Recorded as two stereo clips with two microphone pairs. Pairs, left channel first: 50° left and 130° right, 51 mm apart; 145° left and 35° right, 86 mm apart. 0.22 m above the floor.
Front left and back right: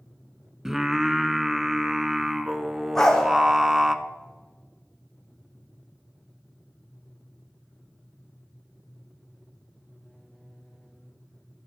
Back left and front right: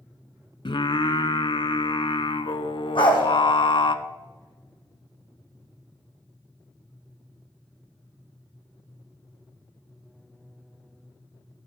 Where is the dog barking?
130° left, 3 m.